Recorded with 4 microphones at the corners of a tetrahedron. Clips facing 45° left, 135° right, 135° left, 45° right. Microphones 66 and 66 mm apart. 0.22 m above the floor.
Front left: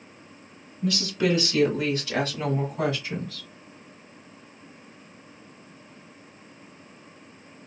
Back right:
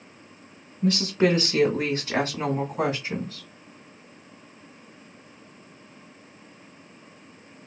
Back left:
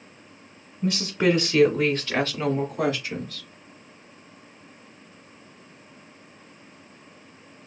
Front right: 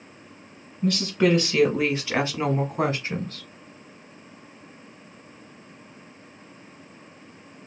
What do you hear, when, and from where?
0.8 s a woman speaking: 165° right, 1.2 m; by 3.5 s 65° right, 1.5 m